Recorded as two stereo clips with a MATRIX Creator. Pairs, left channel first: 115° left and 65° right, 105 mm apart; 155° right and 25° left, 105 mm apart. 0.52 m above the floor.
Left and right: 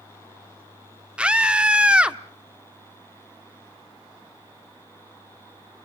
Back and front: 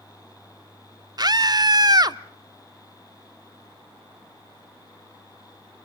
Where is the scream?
5° left, 0.8 m.